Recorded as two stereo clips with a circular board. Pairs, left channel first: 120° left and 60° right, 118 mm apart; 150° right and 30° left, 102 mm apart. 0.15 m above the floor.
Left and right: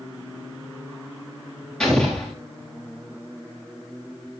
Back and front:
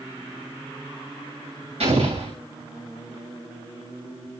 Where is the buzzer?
No buzzer in this recording.